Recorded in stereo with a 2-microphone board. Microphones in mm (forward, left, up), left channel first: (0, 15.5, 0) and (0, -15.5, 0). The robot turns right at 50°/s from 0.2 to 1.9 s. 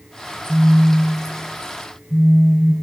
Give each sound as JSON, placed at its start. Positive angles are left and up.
{"t": 0.5, "sound": "a phone buzzing", "azimuth_deg": -45, "distance_m": 1.8}